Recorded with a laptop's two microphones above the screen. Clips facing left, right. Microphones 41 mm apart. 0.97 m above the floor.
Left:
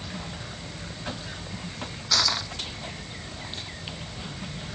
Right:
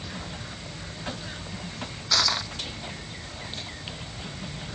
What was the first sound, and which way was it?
Crushing, 5° right (ahead or behind).